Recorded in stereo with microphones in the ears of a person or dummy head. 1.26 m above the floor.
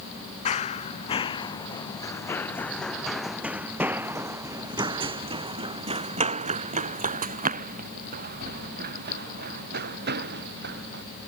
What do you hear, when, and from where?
0.5 s running footsteps: 35° left (ahead or behind); by 11.0 s 65° right (ahead or behind)